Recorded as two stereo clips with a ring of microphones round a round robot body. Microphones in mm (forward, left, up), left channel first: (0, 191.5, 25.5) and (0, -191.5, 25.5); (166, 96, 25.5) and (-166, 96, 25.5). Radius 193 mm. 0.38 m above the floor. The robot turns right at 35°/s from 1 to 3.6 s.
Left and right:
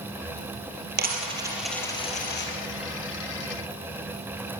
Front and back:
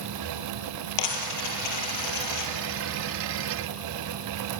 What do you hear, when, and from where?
1.0 s a dropped coin: 25° right, 3 m; by 2.5 s 30° left, 3 m